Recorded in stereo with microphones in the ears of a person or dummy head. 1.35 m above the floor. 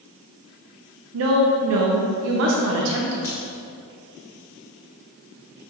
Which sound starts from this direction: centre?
A crack, at 3.2 s.